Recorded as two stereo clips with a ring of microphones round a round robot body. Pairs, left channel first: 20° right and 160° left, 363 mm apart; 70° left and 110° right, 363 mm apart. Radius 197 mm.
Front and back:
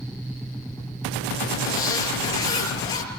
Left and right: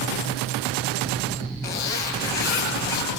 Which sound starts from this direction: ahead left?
A zipper, at 1.6 s.